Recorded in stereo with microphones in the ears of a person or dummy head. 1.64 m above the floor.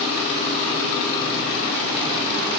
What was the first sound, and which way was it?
Only background noise.